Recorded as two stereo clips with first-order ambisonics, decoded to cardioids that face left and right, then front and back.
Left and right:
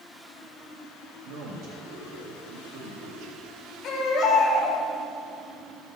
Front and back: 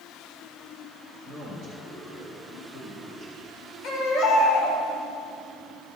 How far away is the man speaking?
About 2.5 m.